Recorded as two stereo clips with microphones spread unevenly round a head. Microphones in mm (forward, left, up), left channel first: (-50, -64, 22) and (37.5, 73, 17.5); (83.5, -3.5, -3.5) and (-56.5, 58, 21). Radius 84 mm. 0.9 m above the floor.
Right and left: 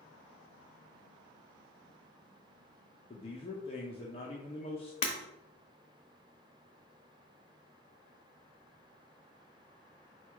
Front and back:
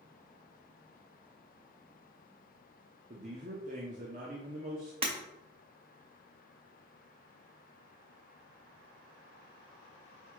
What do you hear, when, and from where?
3.1 s a man speaking: 170° right, 0.7 m
5.0 s breaking glass: 165° right, 0.9 m